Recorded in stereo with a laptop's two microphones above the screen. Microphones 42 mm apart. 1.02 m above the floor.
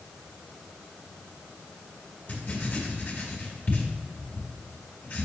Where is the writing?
50° left (ahead or behind), 2 m.